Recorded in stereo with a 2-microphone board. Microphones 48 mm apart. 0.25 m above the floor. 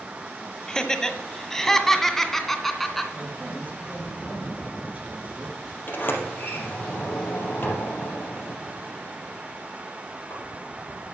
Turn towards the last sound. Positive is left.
turn(degrees=45)  # may be behind; listen again after turning